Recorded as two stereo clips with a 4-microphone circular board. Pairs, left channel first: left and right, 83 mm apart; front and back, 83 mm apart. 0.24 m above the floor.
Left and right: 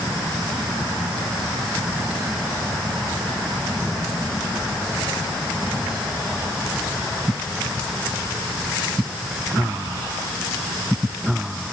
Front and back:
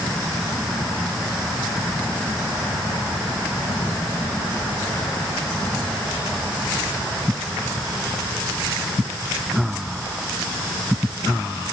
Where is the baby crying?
No baby crying in this recording.